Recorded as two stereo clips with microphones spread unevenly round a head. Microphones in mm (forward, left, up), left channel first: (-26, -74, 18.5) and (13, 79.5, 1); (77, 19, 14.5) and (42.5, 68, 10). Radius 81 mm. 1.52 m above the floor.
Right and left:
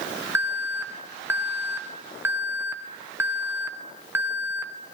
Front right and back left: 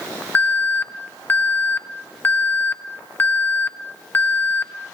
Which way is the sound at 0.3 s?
5° left.